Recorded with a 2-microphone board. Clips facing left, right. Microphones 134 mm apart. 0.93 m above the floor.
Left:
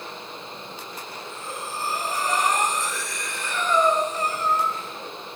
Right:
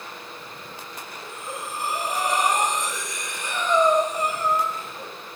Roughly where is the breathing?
Centre.